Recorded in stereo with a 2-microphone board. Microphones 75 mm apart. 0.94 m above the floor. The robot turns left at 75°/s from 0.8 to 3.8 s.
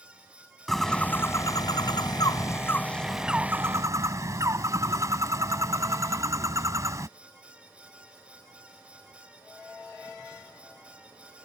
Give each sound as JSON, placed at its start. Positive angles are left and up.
{"t": 0.7, "sound": "a bird", "azimuth_deg": 175}